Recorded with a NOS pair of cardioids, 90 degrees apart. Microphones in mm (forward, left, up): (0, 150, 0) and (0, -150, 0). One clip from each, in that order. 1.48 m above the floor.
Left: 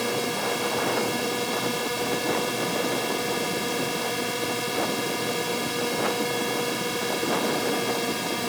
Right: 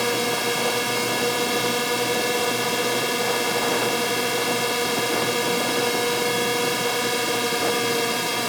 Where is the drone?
35° right.